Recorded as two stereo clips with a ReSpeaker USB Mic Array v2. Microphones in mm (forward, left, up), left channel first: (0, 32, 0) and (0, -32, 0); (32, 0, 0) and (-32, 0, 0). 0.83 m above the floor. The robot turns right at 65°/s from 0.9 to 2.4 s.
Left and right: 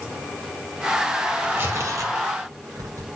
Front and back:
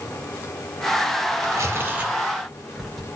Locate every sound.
1.4 s tearing paper: 150° right, 3 m; by 3.1 s 85° right, 3 m